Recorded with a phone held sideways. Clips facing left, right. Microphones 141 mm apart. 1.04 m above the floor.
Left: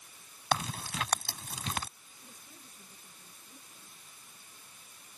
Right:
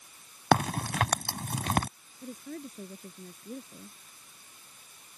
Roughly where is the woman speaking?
Right.